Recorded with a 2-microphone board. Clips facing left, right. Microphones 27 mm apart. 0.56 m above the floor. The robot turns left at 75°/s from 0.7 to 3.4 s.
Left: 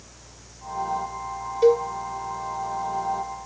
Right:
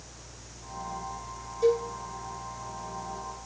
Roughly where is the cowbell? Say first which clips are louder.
Left 6 dB; left.